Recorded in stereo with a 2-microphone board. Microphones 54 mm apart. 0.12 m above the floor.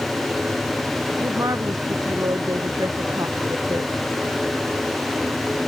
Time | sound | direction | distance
1.2 | a woman speaking | 75° right (ahead or behind) | ?